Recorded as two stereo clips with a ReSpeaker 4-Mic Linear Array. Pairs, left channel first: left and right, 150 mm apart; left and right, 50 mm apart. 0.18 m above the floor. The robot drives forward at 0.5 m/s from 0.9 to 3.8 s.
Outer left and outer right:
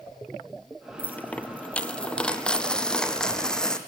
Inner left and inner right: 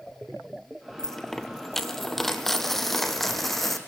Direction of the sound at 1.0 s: 10° left (ahead or behind).